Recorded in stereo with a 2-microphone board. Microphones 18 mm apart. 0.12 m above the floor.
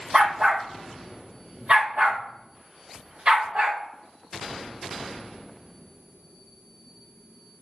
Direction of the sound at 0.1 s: 50° right (ahead or behind).